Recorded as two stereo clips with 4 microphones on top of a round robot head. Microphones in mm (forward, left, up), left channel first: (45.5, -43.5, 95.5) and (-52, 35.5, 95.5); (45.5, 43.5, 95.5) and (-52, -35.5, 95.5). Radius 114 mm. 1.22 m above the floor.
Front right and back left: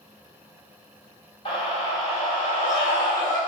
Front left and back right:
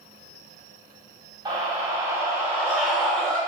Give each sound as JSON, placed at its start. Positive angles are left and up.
{"t": 1.4, "sound": "a scream", "azimuth_deg": -85, "distance_m": 1.6}